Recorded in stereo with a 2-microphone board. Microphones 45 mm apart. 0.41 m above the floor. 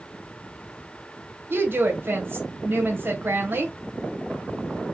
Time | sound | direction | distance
1.5 | a woman speaking | 50° right (ahead or behind) | 1.5 m